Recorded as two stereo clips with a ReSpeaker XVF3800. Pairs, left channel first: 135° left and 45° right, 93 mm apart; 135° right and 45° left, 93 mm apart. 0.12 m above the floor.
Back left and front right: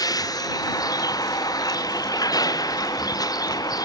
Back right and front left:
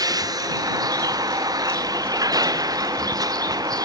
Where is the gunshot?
No gunshot in this recording.